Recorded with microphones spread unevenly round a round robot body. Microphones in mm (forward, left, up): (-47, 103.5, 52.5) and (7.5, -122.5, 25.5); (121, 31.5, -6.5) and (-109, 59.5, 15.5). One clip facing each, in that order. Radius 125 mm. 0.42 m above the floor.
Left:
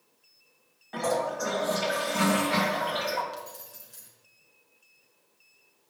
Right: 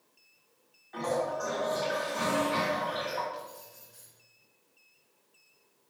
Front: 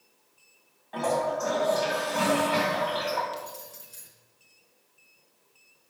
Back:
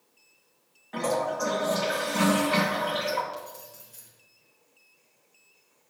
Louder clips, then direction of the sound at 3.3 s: Left 1 dB, front 1 dB; 60° left.